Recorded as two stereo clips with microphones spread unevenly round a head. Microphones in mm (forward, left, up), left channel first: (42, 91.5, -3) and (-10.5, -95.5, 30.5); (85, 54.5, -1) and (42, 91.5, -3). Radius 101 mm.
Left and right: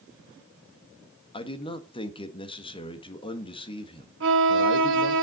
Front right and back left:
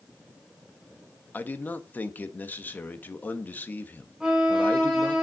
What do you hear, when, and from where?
1.3 s a man speaking: 15° left, 1.7 m
4.2 s a violin: 135° right, 1.3 m